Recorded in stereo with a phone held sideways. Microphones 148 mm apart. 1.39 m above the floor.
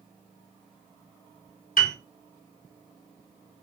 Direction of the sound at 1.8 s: 60° left (ahead or behind).